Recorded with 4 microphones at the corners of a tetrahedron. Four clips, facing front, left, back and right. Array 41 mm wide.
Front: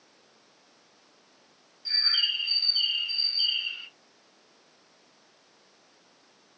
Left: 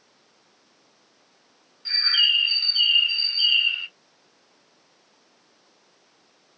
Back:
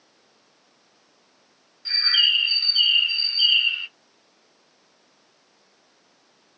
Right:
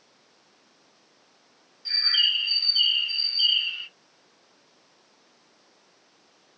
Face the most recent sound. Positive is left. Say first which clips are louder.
# left 2 dB, back 6 dB
turn(degrees=140)